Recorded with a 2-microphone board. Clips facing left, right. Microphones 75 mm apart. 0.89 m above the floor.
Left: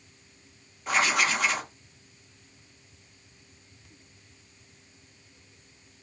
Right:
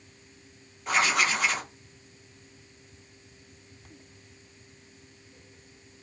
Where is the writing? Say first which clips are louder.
Even; centre (ahead or behind), 0.6 m.